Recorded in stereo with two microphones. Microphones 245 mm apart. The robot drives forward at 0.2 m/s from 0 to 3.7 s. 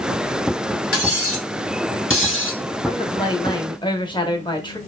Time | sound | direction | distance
0.9 | cutlery clinking | 65° left (ahead or behind) | 0.9 m
2.9 | a woman speaking | 20° left (ahead or behind) | 0.6 m